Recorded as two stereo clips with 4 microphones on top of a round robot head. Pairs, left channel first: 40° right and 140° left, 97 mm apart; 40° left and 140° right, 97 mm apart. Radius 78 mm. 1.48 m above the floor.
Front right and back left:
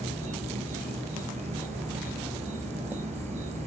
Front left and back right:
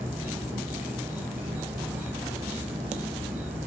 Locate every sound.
0.0 s an insect: 150° left, 4 m